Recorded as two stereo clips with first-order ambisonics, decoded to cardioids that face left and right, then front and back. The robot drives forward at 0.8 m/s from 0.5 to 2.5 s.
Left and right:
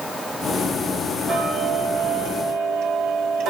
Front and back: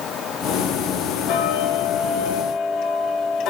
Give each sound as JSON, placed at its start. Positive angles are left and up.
{"t": 1.3, "sound": "ticking", "azimuth_deg": -30, "distance_m": 2.0}